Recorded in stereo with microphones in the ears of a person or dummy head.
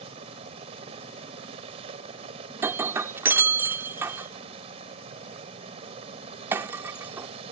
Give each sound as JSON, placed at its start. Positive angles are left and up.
{"t": 0.0, "sound": "a helicopter", "side_deg": -35}
{"t": 2.6, "sound": "breaking glass", "side_deg": -15}